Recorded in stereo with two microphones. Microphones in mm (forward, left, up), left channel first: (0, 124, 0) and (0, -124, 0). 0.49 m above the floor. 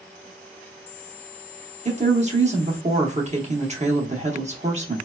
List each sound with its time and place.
1.9 s a woman speaking: 30° right (ahead or behind), 0.7 m